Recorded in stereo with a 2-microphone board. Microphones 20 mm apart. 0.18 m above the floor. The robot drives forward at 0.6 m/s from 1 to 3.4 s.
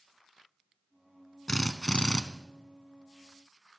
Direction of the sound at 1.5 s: 40° left (ahead or behind).